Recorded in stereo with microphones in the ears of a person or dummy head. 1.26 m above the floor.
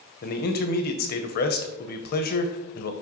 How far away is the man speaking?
About 0.8 m.